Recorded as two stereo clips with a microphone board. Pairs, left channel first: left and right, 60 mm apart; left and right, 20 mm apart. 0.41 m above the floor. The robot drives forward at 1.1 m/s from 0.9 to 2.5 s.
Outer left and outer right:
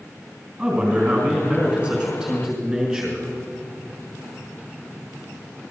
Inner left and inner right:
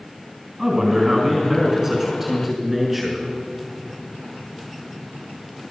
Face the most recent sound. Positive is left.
turn(degrees=-10)  # may be behind; listen again after turning